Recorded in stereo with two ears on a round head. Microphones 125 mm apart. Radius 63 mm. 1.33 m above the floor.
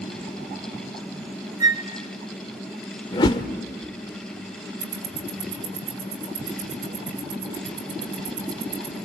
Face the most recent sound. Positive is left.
turn(degrees=-60)  # may be behind; listen again after turning